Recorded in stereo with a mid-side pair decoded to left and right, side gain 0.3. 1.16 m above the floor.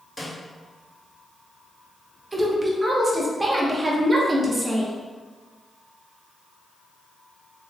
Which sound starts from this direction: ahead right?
A woman speaking, at 2.3 s.